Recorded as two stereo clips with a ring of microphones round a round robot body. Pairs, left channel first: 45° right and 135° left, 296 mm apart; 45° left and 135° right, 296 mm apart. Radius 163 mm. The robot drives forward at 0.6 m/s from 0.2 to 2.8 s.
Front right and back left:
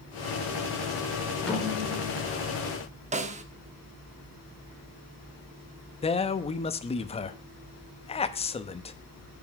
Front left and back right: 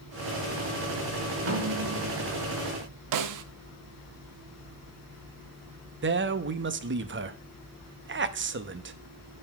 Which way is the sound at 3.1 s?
155° right.